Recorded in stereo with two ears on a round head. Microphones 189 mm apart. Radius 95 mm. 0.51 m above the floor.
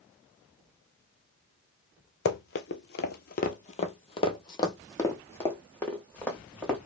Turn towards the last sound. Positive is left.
turn(degrees=5)  # may be behind; listen again after turning